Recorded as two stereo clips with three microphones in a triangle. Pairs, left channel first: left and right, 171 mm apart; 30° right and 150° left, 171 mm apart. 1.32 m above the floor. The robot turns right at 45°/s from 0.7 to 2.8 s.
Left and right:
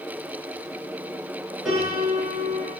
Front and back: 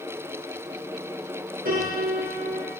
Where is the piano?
Straight behind, 7.5 m; by 2.7 s 130° right, 7.5 m.